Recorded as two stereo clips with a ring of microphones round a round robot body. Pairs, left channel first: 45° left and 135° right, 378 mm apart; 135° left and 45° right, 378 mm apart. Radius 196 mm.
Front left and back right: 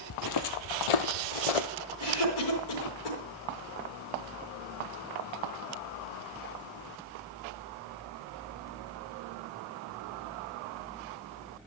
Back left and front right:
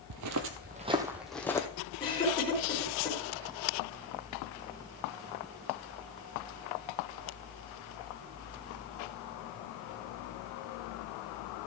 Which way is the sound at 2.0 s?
55° left.